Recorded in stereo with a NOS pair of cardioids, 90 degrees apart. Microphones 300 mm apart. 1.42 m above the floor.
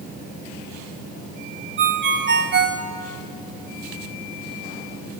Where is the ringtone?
40° right, 3 m.